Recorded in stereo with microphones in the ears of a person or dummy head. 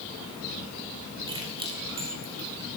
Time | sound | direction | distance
1.3 | keys jangling | 20° right (ahead or behind) | 4.5 m